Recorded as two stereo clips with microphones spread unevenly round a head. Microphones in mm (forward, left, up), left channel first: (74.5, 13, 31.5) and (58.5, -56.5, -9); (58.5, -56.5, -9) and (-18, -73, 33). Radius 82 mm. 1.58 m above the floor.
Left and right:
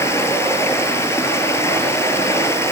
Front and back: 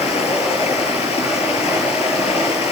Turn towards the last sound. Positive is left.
turn(degrees=45)